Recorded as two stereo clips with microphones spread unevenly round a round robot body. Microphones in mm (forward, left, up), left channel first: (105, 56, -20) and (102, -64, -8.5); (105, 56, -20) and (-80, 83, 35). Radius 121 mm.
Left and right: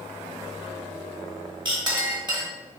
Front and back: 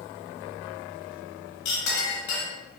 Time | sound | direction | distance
1.6 | a clink | 40° right | 1.3 m